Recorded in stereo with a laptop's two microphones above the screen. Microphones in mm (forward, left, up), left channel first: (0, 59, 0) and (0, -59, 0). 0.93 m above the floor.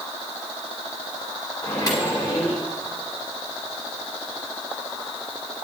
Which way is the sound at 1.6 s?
30° left (ahead or behind).